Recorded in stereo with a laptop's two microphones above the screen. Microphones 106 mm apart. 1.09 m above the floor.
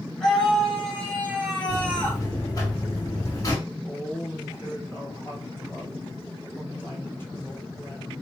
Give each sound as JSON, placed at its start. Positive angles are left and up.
{"t": 0.2, "sound": "a scream", "side_deg": 5, "distance_m": 5.0}
{"t": 1.7, "sound": "a buzzer", "side_deg": 35, "distance_m": 2.5}
{"t": 3.6, "sound": "a woman speaking", "side_deg": 25, "distance_m": 3.5}